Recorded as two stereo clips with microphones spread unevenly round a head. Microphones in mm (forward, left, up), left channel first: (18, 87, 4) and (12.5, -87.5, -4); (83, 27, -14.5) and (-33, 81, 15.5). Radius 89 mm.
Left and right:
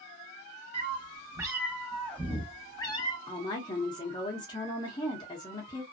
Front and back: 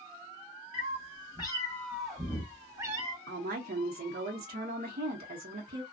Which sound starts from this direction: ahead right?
A cat meowing, at 0.7 s.